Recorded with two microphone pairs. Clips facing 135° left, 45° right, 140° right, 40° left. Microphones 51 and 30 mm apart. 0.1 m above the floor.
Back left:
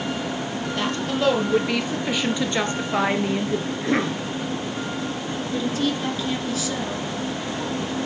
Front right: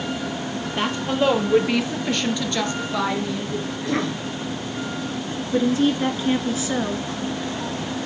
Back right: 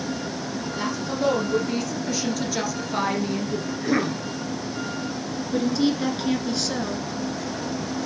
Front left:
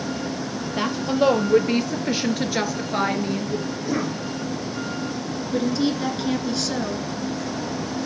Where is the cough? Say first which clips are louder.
Front right 1 dB, back right 2 dB; 175° right, 1.6 m.